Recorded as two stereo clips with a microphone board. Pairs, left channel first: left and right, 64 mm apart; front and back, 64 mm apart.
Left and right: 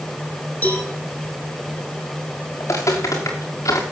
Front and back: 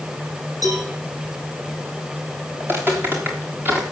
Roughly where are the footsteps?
Behind left.